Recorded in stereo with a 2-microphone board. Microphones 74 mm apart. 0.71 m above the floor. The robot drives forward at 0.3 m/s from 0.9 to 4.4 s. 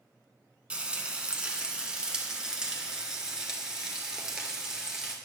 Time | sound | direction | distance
0.7 | frying | 15° right (ahead or behind) | 1.2 m